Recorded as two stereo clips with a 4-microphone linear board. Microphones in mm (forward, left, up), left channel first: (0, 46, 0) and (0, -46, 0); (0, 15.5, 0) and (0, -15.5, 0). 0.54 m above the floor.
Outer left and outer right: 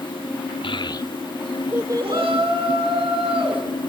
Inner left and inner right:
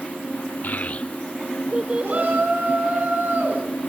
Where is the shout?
75° right (ahead or behind), 5 m.